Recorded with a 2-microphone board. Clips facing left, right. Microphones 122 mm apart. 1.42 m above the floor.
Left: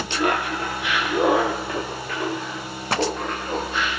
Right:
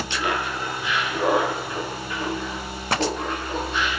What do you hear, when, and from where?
0.1 s laughter: 45° left (ahead or behind), 0.8 m; by 3.9 s 70° left (ahead or behind), 2.5 m